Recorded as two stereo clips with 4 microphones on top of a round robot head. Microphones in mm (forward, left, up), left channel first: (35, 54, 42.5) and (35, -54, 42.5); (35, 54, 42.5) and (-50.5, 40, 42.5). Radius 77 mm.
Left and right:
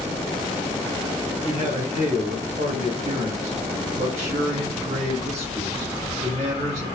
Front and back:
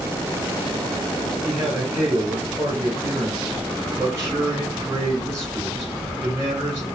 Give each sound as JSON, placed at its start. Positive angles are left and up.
{"t": 1.4, "sound": "a man speaking", "azimuth_deg": -115, "distance_m": 2.5}